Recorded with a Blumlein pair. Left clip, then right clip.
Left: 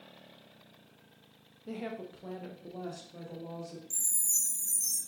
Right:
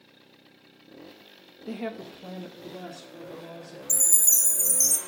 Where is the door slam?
I don't hear a door slam.